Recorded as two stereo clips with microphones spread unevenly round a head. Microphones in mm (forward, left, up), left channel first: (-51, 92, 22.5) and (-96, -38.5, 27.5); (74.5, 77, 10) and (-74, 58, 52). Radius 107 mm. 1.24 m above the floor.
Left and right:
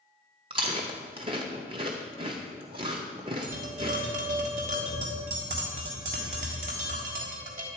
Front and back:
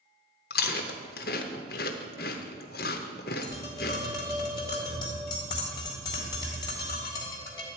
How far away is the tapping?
About 1.5 m.